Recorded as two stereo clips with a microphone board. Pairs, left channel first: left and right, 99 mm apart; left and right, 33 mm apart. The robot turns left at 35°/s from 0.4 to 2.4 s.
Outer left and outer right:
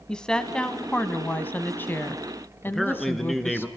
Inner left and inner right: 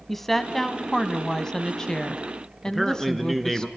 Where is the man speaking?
Centre (ahead or behind), 1.9 m.